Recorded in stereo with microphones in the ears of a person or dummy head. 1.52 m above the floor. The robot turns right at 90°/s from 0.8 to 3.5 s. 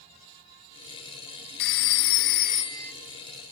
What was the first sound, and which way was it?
A phone ringing, 55° left.